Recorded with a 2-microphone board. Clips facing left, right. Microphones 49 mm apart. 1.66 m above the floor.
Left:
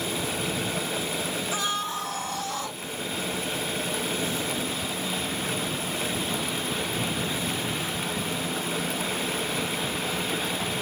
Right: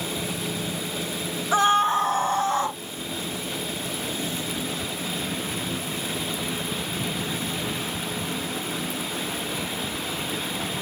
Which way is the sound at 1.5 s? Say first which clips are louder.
Right 14 dB; 45° right (ahead or behind).